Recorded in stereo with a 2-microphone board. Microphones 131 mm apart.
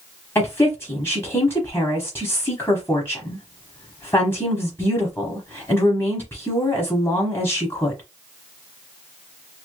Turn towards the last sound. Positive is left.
turn(degrees=20)  # may be behind; listen again after turning